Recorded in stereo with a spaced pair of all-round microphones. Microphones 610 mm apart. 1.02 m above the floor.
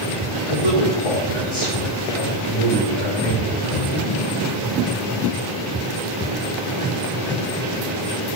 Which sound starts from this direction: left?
A man speaking, at 0.5 s.